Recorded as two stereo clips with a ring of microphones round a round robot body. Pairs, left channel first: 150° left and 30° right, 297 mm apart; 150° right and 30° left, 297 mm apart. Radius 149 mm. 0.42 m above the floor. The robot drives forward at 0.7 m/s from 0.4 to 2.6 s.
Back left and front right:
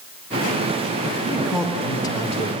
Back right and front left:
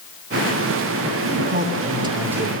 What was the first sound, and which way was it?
A man speaking, 45° left.